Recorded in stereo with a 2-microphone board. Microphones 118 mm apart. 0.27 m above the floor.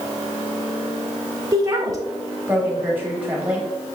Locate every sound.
1.5 s a woman speaking: 30° right (ahead or behind), 1.1 m; by 3.7 s 5° right (ahead or behind), 1.1 m